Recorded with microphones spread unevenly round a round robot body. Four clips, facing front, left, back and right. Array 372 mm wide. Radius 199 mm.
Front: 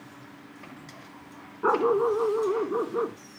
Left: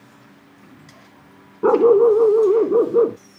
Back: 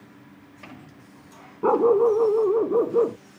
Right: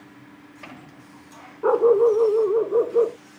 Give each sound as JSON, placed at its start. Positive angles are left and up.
{"t": 1.6, "sound": "a dog barking", "azimuth_deg": 125}